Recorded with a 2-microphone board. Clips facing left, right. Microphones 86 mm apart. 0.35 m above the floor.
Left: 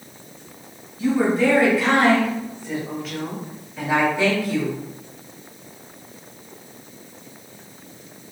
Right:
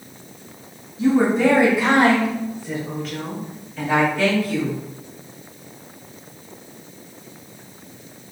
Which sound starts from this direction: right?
A woman speaking, at 1.0 s.